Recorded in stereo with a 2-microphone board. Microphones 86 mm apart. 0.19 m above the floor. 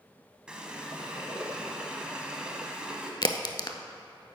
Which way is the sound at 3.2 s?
55° left (ahead or behind).